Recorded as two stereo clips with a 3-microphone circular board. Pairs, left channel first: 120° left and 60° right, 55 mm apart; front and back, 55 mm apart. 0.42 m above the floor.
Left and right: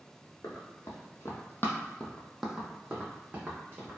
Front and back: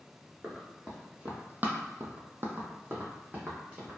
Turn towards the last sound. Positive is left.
turn(degrees=-120)